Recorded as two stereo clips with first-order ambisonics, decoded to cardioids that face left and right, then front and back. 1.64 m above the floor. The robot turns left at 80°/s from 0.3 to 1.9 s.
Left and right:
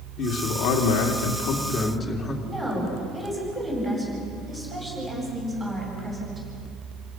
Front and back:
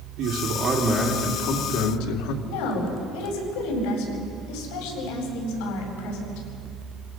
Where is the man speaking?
140° left, 3 m; by 2.3 s 10° left, 3 m.